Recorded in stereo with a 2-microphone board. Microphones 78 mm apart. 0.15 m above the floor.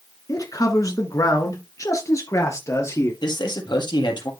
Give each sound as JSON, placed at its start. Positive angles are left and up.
{"t": 0.3, "sound": "a man speaking", "side_deg": 45, "distance_m": 1.6}
{"t": 3.2, "sound": "a man speaking", "side_deg": 70, "distance_m": 4.0}